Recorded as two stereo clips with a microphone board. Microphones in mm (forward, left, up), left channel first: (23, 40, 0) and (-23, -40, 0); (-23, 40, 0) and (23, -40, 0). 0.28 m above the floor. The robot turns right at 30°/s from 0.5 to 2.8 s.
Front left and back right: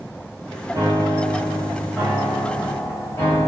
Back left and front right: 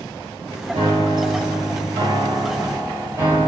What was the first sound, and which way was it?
A piano, 60° right.